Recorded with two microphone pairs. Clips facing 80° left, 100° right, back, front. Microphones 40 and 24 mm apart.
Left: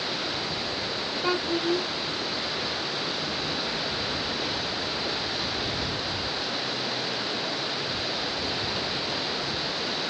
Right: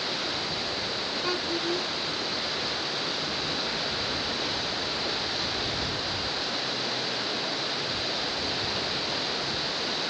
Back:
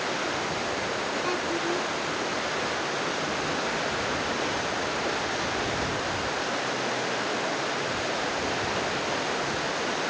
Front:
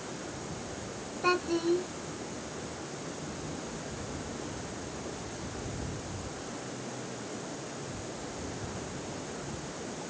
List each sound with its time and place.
0.0 s running water: 165° left
1.2 s a child speaking: 35° left